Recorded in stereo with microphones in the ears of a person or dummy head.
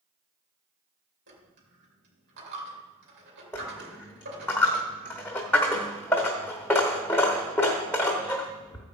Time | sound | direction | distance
1.3 | a dropped coin | 65° right (ahead or behind) | 3 m
3.5 | a dropped coin | 10° left (ahead or behind) | 1.2 m